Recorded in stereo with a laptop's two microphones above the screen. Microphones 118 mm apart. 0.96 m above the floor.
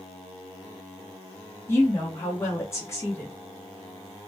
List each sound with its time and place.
1.7 s a woman speaking: 20° left (ahead or behind), 1.3 m